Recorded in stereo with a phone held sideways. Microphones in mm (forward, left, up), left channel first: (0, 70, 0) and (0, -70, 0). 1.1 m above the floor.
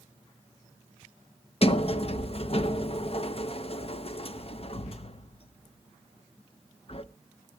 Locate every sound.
1.6 s a sliding door: 45° left (ahead or behind), 0.6 m